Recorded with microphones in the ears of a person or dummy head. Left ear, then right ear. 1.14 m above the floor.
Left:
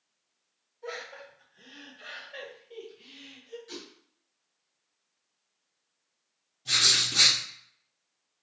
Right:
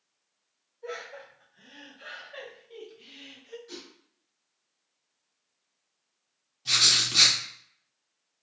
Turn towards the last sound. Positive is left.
turn(degrees=-30)  # may be behind; listen again after turning